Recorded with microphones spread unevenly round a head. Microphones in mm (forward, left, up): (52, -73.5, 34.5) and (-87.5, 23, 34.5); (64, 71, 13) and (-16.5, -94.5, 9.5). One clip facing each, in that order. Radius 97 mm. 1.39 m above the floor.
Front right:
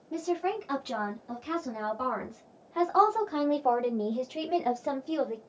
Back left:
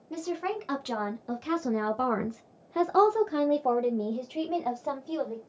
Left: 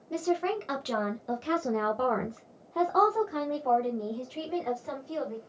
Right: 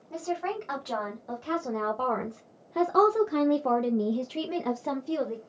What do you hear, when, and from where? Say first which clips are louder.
0.1 s a woman speaking: front right 2 dB, left 3 dB; 115° left, 1.5 m; by 5.4 s 105° right, 1.4 m